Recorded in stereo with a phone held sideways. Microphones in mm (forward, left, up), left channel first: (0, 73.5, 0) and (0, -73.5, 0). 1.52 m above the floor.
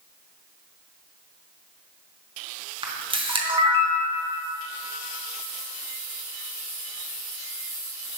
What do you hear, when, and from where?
2.8 s a camera shutter: 35° right (ahead or behind), 0.8 m